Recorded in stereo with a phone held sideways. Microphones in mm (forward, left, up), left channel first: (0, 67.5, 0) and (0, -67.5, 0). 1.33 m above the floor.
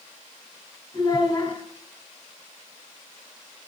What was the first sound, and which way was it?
A child speaking, 35° left (ahead or behind).